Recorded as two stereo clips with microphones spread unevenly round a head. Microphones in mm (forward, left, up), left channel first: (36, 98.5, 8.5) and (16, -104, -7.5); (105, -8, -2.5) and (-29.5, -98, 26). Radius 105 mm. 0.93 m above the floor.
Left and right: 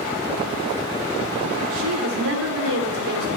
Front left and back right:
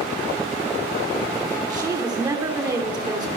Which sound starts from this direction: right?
A woman speaking, at 1.7 s.